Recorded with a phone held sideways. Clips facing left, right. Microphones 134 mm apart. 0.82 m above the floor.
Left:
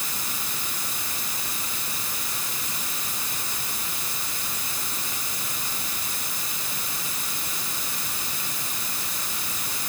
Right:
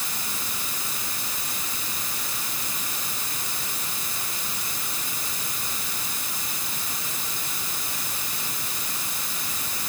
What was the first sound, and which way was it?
Only background noise.